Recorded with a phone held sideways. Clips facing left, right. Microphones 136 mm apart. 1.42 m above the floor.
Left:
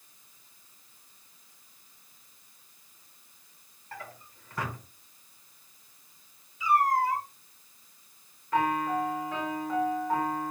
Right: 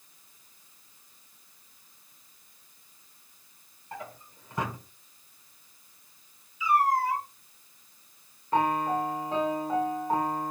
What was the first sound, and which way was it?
A drawer, 20° right (ahead or behind).